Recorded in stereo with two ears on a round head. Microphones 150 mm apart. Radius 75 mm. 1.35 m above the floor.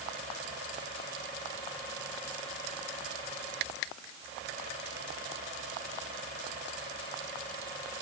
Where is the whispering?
I don't hear whispering.